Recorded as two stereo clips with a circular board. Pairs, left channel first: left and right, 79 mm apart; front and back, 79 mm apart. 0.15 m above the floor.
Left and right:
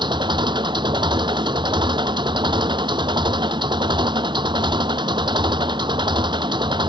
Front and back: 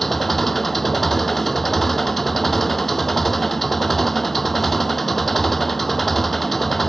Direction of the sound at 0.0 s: 85° right.